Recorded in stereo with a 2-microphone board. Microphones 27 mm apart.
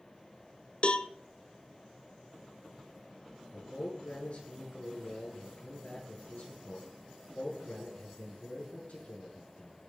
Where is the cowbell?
50° left (ahead or behind), 0.6 m.